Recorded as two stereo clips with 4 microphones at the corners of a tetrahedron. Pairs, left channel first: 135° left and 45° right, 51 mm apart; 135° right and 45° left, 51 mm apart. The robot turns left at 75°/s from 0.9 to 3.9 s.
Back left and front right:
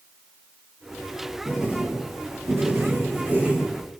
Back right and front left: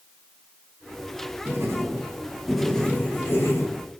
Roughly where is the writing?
Ahead left.